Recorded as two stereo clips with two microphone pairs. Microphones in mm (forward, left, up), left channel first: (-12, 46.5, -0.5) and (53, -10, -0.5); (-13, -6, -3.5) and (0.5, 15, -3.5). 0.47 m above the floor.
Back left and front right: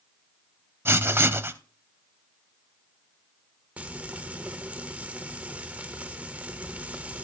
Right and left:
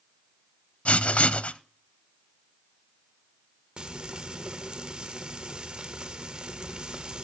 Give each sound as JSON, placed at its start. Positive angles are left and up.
{"t": 0.8, "sound": "writing", "azimuth_deg": -100, "distance_m": 0.6}
{"t": 3.8, "sound": "frying", "azimuth_deg": 25, "distance_m": 1.2}